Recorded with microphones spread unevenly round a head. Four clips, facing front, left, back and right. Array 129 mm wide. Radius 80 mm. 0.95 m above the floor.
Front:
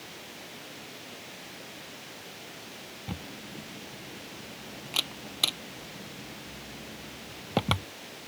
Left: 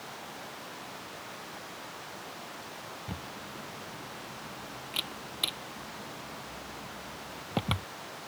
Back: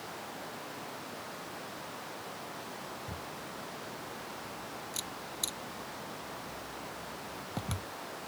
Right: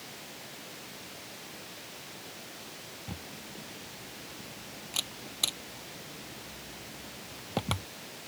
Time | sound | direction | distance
3.1 | a camera shutter | 10° right | ?